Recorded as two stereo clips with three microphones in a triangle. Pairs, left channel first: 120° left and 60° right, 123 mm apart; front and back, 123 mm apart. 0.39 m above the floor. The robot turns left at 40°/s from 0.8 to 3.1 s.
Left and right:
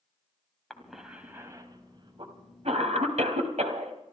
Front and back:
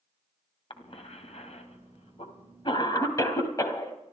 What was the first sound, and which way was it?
A cough, 30° left.